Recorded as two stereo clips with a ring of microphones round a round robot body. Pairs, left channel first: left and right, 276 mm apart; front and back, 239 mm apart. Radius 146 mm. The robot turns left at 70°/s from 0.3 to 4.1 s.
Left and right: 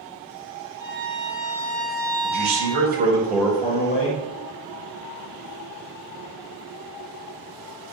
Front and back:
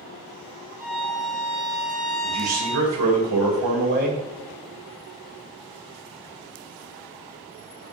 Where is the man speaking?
100° right, 6 m; by 4.2 s 130° left, 6 m.